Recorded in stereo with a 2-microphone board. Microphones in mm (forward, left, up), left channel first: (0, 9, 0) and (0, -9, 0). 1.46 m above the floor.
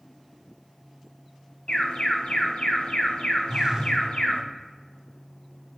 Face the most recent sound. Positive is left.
turn(degrees=-35)  # may be behind; listen again after turning